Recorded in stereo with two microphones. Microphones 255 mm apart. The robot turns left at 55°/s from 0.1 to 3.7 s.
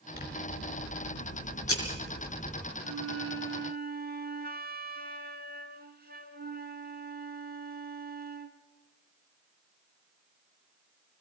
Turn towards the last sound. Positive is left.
turn(degrees=-140)